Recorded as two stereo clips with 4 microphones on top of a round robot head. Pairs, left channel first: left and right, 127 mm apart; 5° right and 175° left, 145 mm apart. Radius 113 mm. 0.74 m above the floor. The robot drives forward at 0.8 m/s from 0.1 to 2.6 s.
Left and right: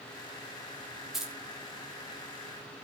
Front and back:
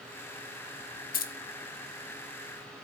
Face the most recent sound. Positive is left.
turn(degrees=-35)